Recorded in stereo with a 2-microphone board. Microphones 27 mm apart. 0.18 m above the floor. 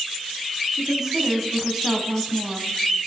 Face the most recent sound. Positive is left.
turn(degrees=-20)  # may be behind; listen again after turning